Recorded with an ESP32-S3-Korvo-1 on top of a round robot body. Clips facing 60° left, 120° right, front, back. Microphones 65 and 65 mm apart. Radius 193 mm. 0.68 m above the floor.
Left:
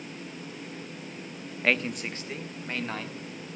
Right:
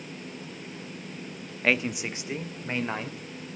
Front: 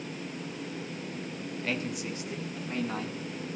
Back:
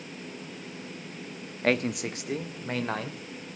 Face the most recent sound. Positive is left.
turn(degrees=170)